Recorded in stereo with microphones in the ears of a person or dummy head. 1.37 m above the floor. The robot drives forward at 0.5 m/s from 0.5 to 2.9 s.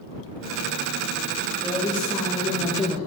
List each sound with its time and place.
1.6 s a woman speaking: 10° left (ahead or behind), 2 m; by 3.0 s 15° left (ahead or behind), 1.4 m